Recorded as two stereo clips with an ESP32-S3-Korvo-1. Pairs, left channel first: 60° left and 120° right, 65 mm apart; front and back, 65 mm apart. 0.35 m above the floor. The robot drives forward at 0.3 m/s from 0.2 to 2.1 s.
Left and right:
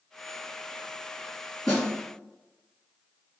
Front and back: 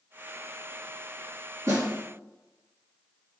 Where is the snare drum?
155° left, 2.0 m.